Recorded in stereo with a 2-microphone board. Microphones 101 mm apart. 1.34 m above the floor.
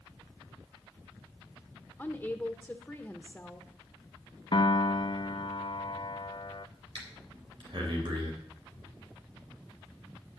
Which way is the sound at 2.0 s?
10° left (ahead or behind).